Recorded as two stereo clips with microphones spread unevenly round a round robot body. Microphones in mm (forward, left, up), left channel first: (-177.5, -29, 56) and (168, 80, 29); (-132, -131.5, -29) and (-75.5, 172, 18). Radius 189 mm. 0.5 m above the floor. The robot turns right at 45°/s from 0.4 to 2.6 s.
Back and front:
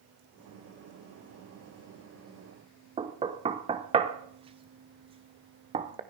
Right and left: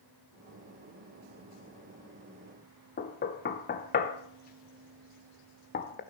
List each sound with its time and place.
3.0 s knocking: 50° right, 0.6 m